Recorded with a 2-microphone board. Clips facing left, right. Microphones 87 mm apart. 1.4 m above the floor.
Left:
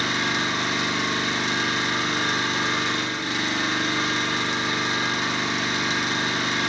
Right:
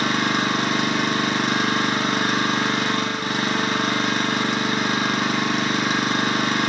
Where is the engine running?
55° right (ahead or behind), 0.8 m.